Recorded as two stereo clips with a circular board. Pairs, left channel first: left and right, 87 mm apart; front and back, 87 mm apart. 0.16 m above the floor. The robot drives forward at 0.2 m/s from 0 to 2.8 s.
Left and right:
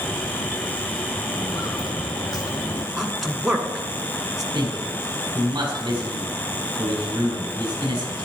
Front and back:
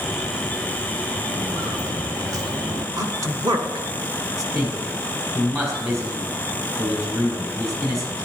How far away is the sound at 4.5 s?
About 4.5 m.